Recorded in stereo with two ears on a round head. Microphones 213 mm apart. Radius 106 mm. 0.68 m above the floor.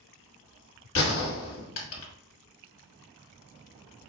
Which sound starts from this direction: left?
A gunshot, at 0.9 s.